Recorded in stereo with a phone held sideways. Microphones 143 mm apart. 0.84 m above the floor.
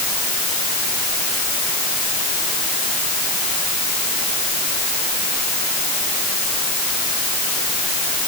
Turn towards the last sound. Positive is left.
No sound to turn to.